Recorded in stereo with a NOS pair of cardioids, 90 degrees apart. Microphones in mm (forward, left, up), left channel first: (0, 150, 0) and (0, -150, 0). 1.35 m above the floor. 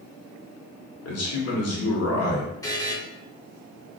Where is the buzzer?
10° left, 1.6 m.